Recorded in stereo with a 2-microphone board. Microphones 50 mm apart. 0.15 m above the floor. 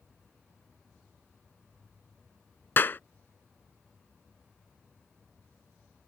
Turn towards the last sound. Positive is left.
turn(degrees=45)  # may be behind; listen again after turning